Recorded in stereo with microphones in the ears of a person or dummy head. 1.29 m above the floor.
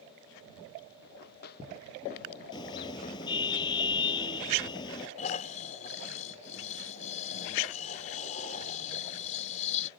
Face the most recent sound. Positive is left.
turn(degrees=45)  # may be behind; listen again after turning